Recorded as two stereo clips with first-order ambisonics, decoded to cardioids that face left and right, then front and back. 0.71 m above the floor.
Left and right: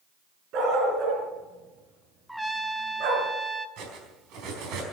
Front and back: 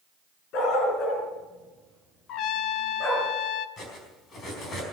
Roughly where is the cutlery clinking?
Ahead right.